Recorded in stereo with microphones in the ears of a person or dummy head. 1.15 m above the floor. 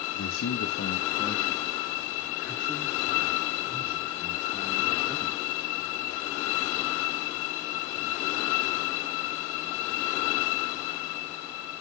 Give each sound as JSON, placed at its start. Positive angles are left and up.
{"t": 0.1, "sound": "a man speaking", "side_deg": 80, "distance_m": 1.1}